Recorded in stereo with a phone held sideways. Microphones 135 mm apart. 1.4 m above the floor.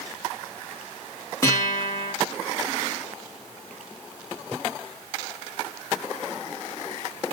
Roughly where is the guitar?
Left.